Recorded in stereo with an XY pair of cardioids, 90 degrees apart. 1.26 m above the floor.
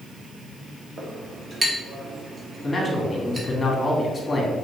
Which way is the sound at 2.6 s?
25° left.